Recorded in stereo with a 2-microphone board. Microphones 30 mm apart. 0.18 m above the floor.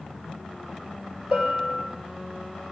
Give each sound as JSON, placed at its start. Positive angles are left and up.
{"t": 1.3, "sound": "a bell", "side_deg": -30, "distance_m": 3.5}